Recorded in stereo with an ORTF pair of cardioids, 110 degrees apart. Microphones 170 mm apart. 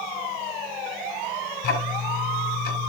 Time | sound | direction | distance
1.6 | ticking | 60° left | 7 m